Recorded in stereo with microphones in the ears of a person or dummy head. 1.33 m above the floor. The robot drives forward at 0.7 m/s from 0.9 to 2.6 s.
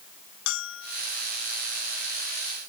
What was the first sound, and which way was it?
A bell, 70° left (ahead or behind).